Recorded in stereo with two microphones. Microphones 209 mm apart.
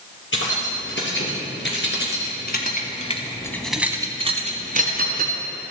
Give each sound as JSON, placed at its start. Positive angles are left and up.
{"t": 0.3, "sound": "keys jangling", "side_deg": 65, "distance_m": 3.0}